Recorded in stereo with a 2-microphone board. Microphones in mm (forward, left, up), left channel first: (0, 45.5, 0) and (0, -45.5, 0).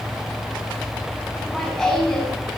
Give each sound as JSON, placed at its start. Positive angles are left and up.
{"t": 1.4, "sound": "laughter", "side_deg": 5, "distance_m": 7.5}